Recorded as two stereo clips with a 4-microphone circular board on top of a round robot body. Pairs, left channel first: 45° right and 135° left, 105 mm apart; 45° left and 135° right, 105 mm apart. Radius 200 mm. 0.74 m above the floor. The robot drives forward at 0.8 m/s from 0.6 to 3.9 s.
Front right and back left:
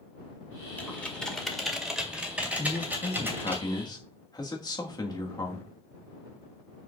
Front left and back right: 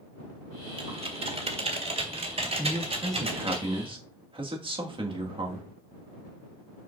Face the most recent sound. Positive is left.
turn(degrees=-100)